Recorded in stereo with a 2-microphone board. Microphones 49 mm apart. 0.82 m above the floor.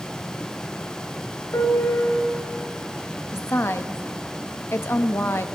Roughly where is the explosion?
No explosion in this recording.